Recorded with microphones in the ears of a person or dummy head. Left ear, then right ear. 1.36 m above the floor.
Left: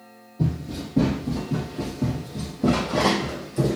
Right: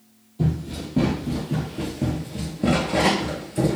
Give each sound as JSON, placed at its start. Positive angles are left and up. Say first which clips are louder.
{"t": 0.4, "sound": "running footsteps", "louder": "right 1 dB", "side_deg": -25, "distance_m": 2.0}